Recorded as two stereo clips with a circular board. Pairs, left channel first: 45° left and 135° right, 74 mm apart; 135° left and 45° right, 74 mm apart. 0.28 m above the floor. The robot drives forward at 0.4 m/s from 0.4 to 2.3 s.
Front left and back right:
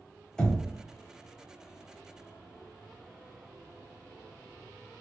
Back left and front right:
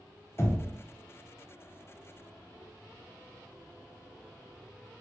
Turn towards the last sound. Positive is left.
turn(degrees=155)